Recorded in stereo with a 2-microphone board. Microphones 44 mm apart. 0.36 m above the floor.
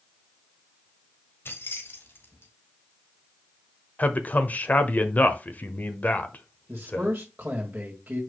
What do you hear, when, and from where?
1.4 s keys jangling: 55° left (ahead or behind), 1.3 m
4.0 s a man speaking: 35° left (ahead or behind), 1.0 m
6.7 s a man speaking: 35° right (ahead or behind), 2 m